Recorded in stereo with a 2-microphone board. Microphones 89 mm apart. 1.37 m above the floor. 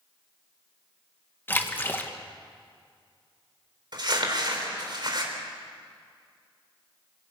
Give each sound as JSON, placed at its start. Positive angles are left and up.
{"t": 1.5, "sound": "a splash", "side_deg": 20, "distance_m": 1.5}
{"t": 3.9, "sound": "crumpling", "side_deg": -50, "distance_m": 3.5}